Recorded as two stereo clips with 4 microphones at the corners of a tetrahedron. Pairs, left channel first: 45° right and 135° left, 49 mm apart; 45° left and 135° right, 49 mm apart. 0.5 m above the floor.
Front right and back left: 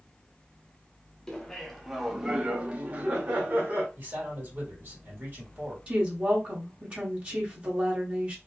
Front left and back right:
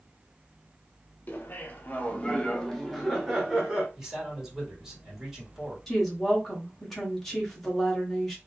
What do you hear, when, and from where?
1.3 s laughter: 25° left, 1.0 m; by 3.9 s 155° left, 1.1 m
4.0 s a man speaking: 150° left, 1.9 m
5.9 s a woman speaking: 125° left, 1.0 m